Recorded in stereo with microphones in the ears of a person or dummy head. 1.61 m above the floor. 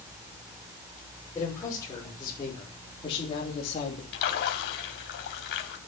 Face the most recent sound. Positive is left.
turn(degrees=60)  # may be behind; listen again after turning